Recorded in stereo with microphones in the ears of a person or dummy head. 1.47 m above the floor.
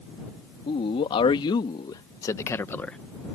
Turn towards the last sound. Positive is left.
turn(degrees=5)  # may be behind; listen again after turning